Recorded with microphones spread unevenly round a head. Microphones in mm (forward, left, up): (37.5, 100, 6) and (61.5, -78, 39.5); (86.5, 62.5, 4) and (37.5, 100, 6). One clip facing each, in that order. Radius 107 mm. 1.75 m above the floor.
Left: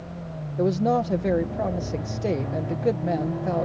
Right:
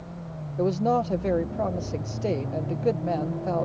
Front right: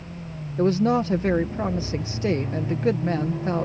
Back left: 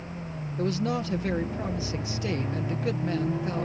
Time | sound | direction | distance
0.6 | a woman speaking | 15° left | ?